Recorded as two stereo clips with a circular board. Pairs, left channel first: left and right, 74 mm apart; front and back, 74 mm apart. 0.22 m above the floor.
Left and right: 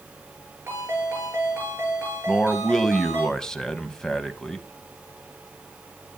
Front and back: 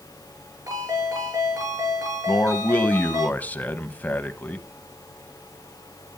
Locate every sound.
0.7 s a ringtone: 145° right, 9.5 m
2.3 s a man speaking: 20° left, 1.0 m